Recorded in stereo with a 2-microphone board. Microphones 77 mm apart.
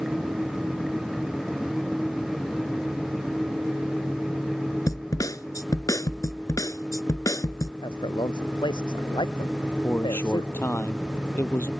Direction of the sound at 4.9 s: 50° left (ahead or behind).